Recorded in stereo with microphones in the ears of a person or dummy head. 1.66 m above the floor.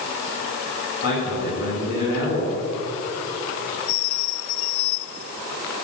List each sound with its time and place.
1.0 s a man speaking: 60° left (ahead or behind), 3 m